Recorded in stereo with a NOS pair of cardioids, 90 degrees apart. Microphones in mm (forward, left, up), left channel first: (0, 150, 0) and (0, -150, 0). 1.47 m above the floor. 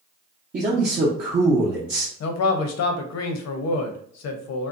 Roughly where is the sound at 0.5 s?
Ahead right.